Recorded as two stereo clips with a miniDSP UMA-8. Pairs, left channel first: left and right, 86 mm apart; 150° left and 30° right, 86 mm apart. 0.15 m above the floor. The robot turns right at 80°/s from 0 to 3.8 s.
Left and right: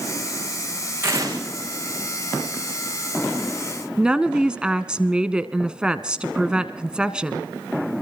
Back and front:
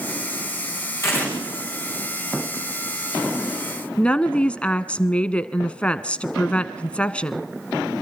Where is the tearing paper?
155° right, 7 m; by 1.4 s 130° right, 7 m.